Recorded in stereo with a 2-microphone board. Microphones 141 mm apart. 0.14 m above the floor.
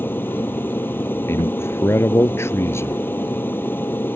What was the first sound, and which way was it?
An aircraft, 15° left (ahead or behind).